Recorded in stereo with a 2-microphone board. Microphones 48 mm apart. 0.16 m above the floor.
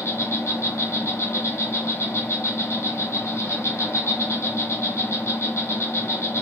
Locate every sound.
0.0 s an insect: 80° left, 0.7 m